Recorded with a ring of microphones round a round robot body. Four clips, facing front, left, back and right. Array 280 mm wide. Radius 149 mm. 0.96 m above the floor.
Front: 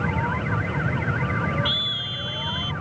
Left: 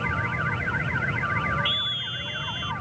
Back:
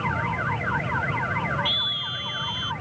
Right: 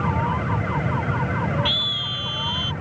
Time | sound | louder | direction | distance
1.6 | a scream | right 4 dB, front 1 dB | 90° right | ?